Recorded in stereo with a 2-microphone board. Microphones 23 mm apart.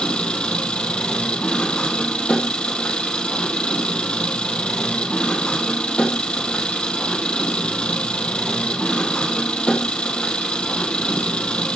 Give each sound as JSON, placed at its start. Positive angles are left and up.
{"t": 0.0, "sound": "an engine running", "side_deg": 60, "distance_m": 2.5}